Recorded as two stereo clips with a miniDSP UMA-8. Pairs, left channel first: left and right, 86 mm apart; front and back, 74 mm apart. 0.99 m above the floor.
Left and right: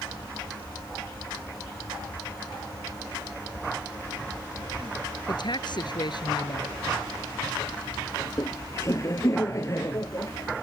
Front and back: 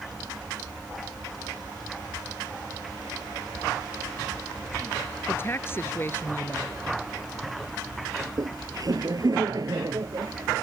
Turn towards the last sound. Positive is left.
turn(degrees=145)